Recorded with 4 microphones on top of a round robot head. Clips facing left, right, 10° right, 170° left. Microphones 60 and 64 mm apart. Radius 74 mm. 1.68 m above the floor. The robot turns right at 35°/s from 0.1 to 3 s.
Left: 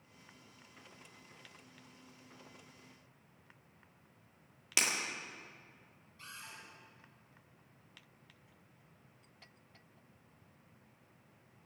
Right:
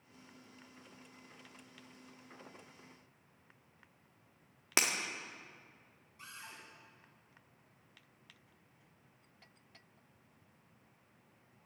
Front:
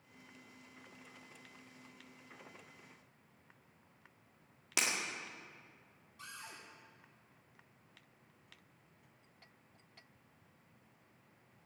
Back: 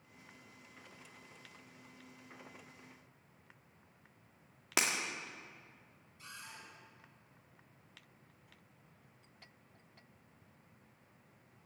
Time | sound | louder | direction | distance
4.8 | breaking glass | right 1 dB, back 3 dB | 130° right | 1.7 m
6.2 | a cupboard door | even, front 1 dB | 20° right | 5.5 m